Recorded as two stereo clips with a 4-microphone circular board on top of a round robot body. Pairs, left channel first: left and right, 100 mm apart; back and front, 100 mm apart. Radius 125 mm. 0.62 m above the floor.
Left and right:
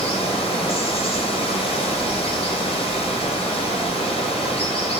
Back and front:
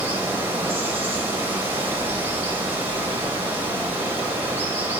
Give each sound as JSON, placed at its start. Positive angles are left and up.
{"t": 0.0, "sound": "running water", "azimuth_deg": 70, "distance_m": 4.0}